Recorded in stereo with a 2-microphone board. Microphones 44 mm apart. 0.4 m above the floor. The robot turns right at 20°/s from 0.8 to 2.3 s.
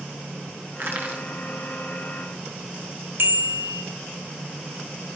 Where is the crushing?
50° right (ahead or behind), 3 m; by 1.2 s 45° right (ahead or behind), 3 m.